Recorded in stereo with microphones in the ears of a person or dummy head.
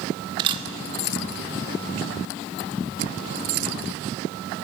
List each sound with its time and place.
0.4 s a camera shutter: 30° right (ahead or behind), 0.7 m